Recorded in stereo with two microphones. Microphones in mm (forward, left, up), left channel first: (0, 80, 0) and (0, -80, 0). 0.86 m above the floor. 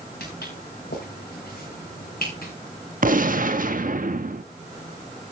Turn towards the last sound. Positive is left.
turn(degrees=-60)  # may be behind; listen again after turning